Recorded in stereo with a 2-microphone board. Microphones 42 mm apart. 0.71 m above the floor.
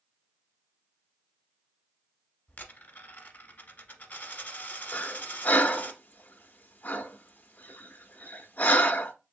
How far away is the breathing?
About 0.5 m.